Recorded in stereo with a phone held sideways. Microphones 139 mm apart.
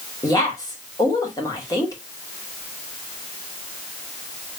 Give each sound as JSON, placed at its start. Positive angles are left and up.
{"t": 0.2, "sound": "a woman speaking", "side_deg": 25, "distance_m": 2.0}